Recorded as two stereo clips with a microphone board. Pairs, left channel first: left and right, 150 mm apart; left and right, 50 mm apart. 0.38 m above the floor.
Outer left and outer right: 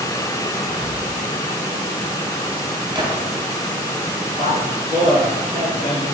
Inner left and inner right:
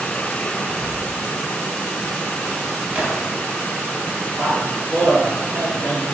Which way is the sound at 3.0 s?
30° right (ahead or behind).